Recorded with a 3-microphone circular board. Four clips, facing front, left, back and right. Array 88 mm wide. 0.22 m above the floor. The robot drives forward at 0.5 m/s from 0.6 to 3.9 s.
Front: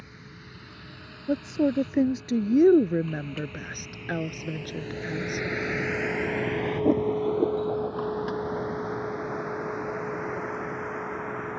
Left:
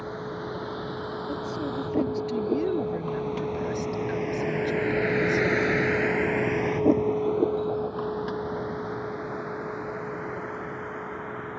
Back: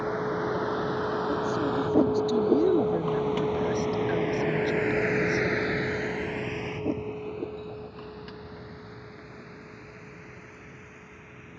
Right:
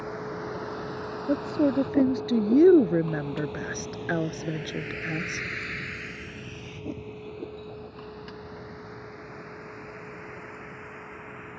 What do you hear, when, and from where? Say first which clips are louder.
0.0 s a vehicle: left 1 dB, back 20 dB; straight behind; by 11.6 s 30° left
1.3 s a woman speaking: right 10 dB, front 2 dB; 50° right; by 5.5 s 75° right